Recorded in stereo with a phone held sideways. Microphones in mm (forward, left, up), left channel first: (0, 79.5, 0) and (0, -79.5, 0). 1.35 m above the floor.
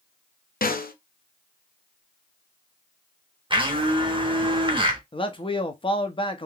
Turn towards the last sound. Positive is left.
turn(degrees=35)  # may be behind; listen again after turning